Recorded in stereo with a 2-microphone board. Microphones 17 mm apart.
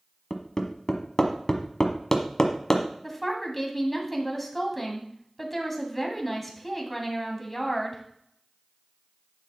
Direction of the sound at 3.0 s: 5° left (ahead or behind).